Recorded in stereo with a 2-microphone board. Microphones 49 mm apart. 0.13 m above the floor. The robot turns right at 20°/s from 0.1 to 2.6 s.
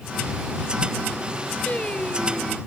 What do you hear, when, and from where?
1.7 s singing: 30° left (ahead or behind); by 2.6 s 15° left (ahead or behind)